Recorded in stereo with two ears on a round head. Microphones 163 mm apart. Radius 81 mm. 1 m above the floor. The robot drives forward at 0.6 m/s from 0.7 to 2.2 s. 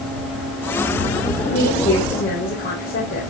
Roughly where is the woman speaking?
Left.